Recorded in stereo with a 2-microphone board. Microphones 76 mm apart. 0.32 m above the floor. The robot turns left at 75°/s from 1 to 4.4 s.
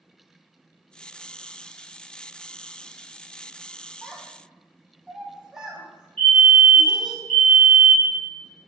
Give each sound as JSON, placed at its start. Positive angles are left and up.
{"t": 4.0, "sound": "a child speaking", "side_deg": 15, "distance_m": 1.6}
{"t": 6.2, "sound": "a fire alarm", "side_deg": 20, "distance_m": 1.9}